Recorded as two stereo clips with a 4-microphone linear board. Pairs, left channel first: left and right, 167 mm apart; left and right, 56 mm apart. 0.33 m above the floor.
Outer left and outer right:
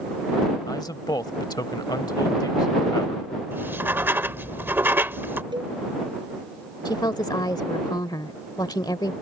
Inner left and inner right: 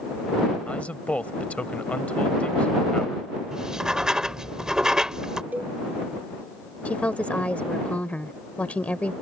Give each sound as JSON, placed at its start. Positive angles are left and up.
{"t": 0.7, "sound": "a man speaking", "side_deg": 25}
{"t": 3.5, "sound": "writing", "side_deg": -15}
{"t": 5.5, "sound": "a cowbell", "side_deg": -30}
{"t": 6.8, "sound": "a woman speaking", "side_deg": 25}